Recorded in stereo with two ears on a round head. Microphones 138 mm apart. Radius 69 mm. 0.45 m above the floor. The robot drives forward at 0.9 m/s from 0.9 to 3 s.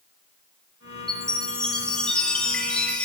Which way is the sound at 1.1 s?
5° left (ahead or behind).